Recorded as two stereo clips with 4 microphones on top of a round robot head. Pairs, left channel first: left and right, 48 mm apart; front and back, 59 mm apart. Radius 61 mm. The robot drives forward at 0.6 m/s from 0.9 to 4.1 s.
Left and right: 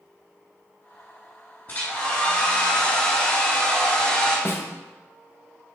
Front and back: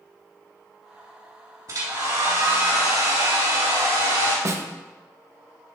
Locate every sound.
1.7 s a hair dryer: 150° left, 2.5 m; by 4.3 s 160° left, 4 m
4.5 s a snare drum: 145° left, 0.6 m